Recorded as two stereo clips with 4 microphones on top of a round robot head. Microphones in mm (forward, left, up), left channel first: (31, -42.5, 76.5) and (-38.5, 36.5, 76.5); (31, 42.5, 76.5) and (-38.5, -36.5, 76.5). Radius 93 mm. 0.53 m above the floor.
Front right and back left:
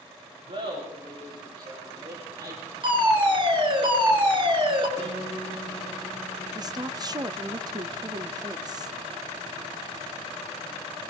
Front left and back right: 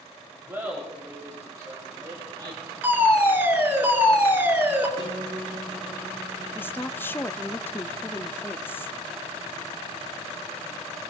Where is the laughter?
160° left, 4 m; by 2.7 s 175° right, 3 m.